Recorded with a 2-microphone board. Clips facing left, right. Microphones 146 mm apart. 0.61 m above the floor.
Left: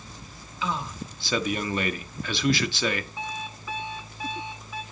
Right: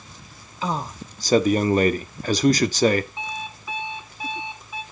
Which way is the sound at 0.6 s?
40° right (ahead or behind).